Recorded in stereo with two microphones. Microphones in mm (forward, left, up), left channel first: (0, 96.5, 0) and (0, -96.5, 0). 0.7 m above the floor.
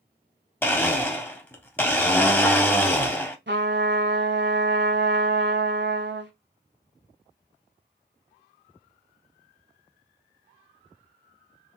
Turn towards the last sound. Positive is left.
turn(degrees=-65)  # may be behind; listen again after turning